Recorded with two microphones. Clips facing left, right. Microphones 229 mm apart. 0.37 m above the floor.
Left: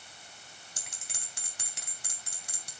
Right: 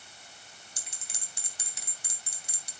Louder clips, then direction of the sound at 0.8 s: Left 1 dB; 65° left (ahead or behind).